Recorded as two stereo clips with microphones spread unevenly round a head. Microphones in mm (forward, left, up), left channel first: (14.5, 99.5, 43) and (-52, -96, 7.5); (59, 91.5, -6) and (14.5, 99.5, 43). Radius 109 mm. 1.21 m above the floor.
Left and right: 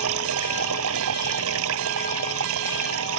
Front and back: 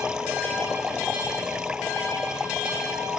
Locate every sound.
0.0 s running water: 110° right